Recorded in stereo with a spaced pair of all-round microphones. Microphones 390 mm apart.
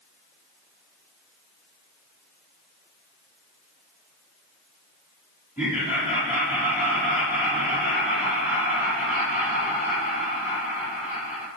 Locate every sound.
5.6 s laughter: 20° left (ahead or behind), 2.5 m